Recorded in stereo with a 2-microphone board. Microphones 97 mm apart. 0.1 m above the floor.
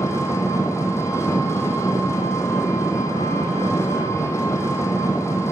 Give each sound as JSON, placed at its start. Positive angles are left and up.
{"t": 0.0, "sound": "an engine running", "side_deg": 30, "distance_m": 1.9}